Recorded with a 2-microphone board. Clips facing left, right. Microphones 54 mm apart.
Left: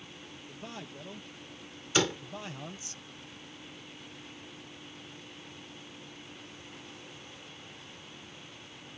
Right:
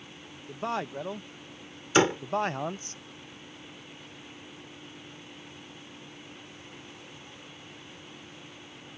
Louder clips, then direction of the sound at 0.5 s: Right 14 dB; 85° right.